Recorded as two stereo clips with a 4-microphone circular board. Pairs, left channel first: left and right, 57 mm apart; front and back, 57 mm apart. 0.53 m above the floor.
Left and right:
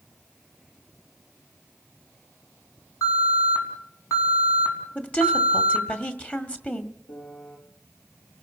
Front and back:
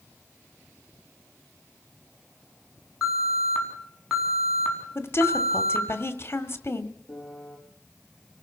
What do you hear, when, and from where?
3.0 s an alarm: 85° left, 5 m
5.0 s a woman speaking: 30° left, 1.7 m
7.1 s a piano: 70° left, 6 m